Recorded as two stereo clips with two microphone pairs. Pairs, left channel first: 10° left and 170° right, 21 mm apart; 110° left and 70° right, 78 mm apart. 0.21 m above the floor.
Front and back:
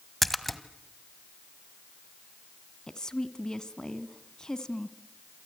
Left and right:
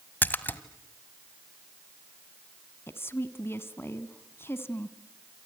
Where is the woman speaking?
60° left, 1.6 m.